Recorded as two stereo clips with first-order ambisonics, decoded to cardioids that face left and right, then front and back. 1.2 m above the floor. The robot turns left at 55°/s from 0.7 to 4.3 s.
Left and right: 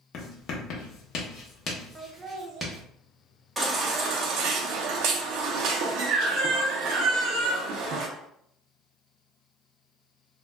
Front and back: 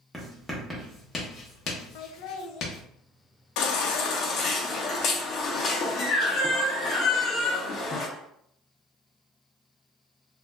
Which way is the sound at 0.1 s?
90° left.